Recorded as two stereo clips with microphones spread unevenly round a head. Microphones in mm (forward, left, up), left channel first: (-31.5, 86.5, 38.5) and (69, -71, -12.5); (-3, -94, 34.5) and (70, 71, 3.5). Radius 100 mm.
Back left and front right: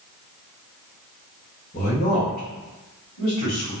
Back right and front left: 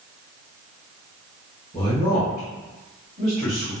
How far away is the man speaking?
About 1.2 m.